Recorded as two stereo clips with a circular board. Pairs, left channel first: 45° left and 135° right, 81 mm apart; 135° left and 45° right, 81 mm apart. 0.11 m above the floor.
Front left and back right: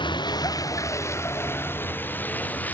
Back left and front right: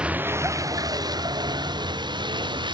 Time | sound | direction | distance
0.0 | a vehicle | 30° left | ?